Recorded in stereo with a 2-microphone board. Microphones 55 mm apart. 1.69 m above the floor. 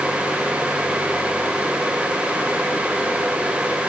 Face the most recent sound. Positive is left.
No sound to turn to.